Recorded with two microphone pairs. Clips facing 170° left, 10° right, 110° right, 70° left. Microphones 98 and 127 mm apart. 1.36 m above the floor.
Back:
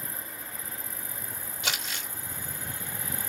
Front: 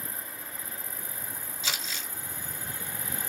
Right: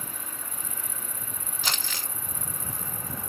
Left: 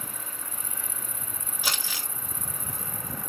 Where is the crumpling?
150° left, 3 m.